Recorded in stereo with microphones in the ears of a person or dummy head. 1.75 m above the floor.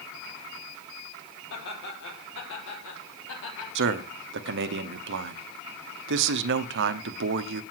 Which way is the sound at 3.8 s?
65° right (ahead or behind).